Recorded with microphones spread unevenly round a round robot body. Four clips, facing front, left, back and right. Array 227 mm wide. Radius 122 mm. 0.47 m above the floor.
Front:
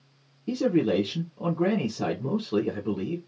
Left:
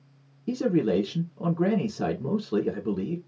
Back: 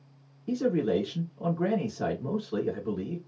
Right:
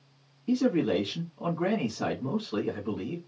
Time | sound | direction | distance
0.5 | a man speaking | 70° left | 1.2 m